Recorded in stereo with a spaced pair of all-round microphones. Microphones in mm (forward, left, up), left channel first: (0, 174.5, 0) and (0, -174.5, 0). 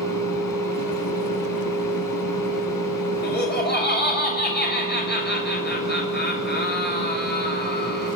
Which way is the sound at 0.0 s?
70° left (ahead or behind).